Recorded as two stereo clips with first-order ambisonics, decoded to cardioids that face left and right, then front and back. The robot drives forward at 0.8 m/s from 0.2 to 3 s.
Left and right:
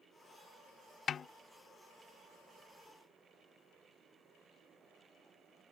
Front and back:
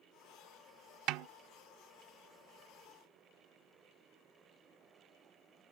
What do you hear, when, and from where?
1.1 s a snare drum: 150° left; by 1.3 s 155° left